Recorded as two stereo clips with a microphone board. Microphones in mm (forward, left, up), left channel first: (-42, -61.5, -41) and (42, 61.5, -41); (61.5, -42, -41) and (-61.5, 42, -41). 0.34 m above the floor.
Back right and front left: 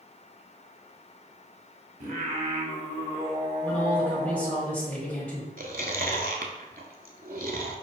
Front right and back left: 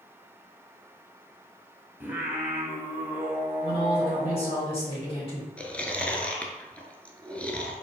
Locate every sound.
2.0 s singing: 70° left, 0.8 m
3.6 s a man speaking: 50° right, 1.2 m
5.6 s chewing: 45° left, 0.6 m